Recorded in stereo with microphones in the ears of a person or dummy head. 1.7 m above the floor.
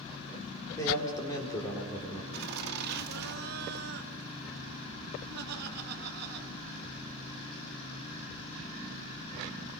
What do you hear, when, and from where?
0.8 s a man speaking: 20° left (ahead or behind), 5 m
2.3 s laughter: 55° right (ahead or behind), 2.5 m